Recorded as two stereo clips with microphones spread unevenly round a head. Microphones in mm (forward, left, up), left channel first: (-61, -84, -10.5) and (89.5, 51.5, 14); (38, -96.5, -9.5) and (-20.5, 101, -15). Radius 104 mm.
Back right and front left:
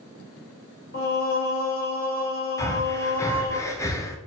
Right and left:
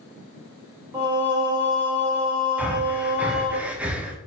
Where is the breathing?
Straight behind, 0.6 m.